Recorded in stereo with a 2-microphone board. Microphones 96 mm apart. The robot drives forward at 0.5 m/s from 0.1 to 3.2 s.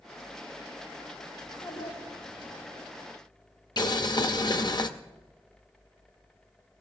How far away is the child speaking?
About 4.5 m.